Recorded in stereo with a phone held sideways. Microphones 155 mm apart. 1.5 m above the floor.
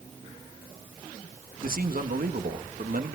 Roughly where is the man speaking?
Right.